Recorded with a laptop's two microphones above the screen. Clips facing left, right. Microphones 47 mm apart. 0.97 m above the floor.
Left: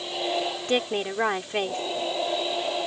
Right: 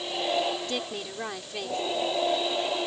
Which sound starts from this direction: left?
A woman speaking, at 0.7 s.